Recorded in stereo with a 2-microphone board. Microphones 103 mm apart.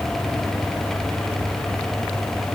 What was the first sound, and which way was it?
Only background noise.